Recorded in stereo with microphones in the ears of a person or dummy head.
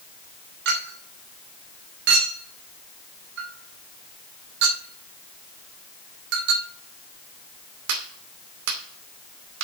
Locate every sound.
0.7 s a clink: 60° right (ahead or behind), 2 m